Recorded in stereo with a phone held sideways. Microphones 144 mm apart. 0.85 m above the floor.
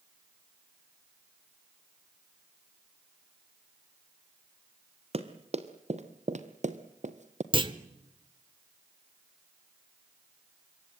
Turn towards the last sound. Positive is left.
turn(degrees=-35)  # may be behind; listen again after turning